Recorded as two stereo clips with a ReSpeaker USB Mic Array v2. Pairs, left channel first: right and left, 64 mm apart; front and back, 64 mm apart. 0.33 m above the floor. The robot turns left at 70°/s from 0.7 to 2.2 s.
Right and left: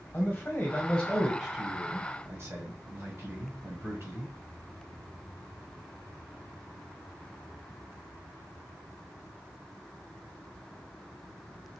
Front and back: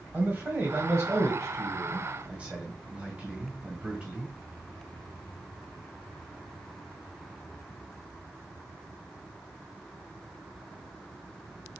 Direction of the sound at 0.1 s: 140° right.